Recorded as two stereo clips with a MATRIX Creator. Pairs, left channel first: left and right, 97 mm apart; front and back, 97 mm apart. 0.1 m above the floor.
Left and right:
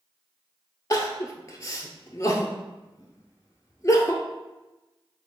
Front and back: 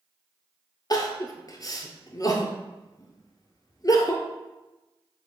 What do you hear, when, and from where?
0.9 s crying: 40° left, 0.6 m